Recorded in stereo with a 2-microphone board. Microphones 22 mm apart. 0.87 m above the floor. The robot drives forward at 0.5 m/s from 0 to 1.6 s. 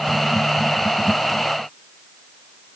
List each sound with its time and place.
Only background noise.